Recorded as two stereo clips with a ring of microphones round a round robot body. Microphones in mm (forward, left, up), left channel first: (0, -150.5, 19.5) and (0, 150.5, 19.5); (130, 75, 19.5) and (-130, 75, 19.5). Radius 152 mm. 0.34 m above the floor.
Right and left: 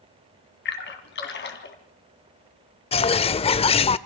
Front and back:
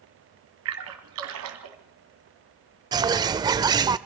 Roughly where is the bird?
Behind right.